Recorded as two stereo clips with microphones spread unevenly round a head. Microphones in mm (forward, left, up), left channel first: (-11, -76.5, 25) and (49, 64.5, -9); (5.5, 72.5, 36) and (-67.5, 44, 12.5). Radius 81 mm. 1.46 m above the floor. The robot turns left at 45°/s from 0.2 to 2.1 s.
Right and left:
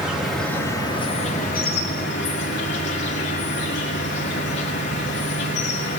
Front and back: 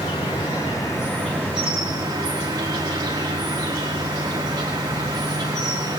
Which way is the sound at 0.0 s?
15° right.